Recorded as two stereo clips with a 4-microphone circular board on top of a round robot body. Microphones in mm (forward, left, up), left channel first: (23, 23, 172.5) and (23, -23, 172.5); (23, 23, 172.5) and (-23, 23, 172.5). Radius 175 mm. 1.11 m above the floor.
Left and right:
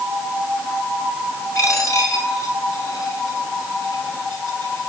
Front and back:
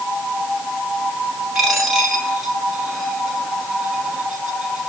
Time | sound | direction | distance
1.6 | a dropped coin | 100° left | 8 m